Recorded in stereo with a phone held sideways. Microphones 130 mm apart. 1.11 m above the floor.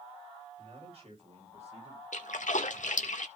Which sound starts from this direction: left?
A splash, at 2.1 s.